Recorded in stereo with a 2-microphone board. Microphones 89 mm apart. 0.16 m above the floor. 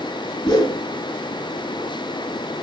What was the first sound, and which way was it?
A whoosh, 60° left (ahead or behind).